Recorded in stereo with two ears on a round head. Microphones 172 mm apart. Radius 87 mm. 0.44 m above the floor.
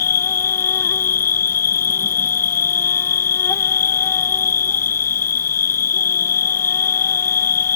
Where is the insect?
15° left (ahead or behind).